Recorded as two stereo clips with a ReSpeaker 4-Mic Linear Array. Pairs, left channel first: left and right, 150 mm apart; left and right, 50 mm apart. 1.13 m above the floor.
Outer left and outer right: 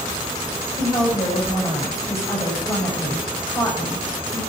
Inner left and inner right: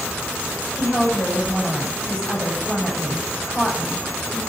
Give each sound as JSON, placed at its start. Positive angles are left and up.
{"t": 0.8, "sound": "a woman speaking", "side_deg": 15, "distance_m": 6.5}